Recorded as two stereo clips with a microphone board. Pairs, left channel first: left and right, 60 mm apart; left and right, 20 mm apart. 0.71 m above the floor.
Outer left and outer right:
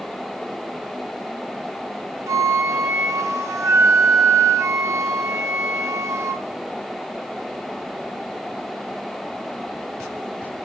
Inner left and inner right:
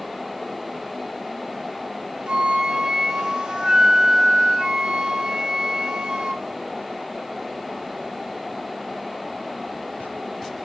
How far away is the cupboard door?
I don't hear a cupboard door.